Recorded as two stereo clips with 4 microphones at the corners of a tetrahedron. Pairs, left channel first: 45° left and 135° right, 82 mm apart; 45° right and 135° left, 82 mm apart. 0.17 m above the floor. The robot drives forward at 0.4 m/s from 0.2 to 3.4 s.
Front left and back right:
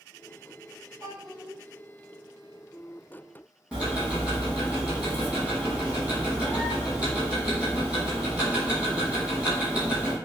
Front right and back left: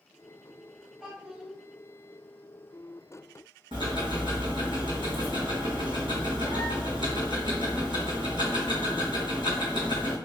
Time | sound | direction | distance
1.0 | a child speaking | 145° right | 1.6 m
3.7 | ticking | 145° left | 1.6 m